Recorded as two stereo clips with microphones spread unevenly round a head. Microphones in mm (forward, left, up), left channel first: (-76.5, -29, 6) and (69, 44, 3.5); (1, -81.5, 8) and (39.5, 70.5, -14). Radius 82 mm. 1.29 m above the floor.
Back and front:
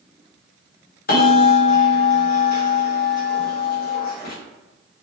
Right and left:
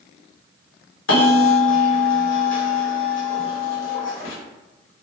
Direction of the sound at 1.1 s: 120° right.